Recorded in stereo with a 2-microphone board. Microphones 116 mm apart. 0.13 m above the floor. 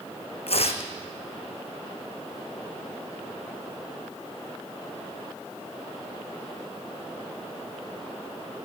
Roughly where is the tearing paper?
Left.